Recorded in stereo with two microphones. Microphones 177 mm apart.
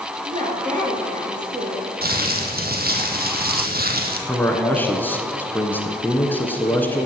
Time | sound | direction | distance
0.2 | a woman speaking | 45° right (ahead or behind) | 3 m
2.0 | crumpling | 60° right (ahead or behind) | 1.3 m
4.3 | a man speaking | 10° left (ahead or behind) | 1.3 m